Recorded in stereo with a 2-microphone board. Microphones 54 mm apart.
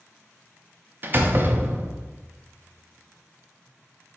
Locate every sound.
1.0 s a door slam: 40° right (ahead or behind), 0.5 m